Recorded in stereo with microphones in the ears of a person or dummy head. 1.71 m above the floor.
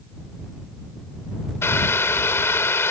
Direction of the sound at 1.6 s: 10° left (ahead or behind).